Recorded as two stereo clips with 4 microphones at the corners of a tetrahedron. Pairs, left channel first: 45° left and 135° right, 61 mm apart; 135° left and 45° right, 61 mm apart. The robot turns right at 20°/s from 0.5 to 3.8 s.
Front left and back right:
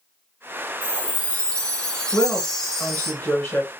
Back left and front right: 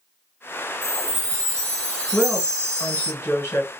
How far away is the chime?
About 1.4 m.